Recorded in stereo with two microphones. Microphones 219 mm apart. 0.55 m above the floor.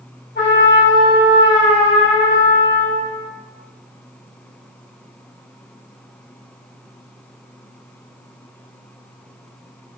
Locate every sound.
0.3 s a trumpet: 55° left (ahead or behind), 1.8 m